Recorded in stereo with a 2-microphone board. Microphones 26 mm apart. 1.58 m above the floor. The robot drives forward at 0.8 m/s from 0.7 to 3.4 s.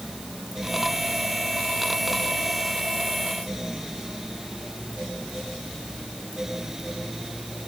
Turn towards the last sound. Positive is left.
No sound to turn to.